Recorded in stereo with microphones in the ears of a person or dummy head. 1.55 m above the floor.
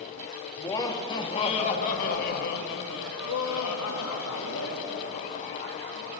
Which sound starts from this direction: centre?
Laughter, at 0.6 s.